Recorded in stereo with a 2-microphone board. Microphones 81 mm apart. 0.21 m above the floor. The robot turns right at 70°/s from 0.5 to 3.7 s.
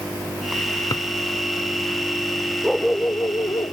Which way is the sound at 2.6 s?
Straight ahead.